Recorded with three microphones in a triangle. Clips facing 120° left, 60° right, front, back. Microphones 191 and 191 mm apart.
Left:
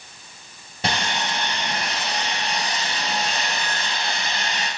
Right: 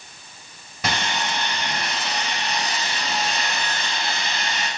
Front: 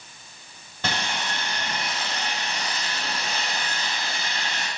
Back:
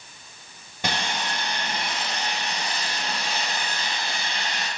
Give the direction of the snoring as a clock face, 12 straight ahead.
No snoring in this recording.